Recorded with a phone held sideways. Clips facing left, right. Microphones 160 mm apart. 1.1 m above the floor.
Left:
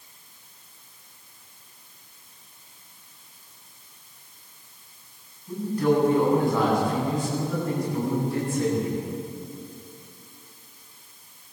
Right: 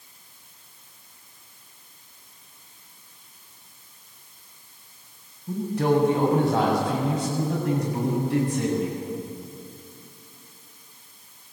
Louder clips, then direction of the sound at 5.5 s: Even; 85° right.